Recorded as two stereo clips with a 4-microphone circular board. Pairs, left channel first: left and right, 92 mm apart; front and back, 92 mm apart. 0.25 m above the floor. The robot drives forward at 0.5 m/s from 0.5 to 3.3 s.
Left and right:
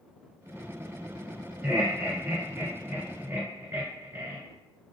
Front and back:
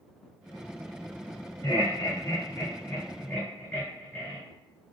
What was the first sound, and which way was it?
Laughter, 25° right.